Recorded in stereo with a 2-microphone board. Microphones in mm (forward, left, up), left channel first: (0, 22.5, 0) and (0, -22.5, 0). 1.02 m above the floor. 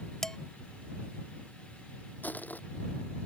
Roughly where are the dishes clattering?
Centre.